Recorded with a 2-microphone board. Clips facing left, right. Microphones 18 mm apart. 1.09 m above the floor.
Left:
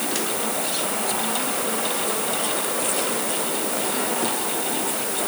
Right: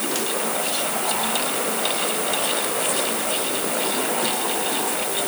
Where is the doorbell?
I don't hear a doorbell.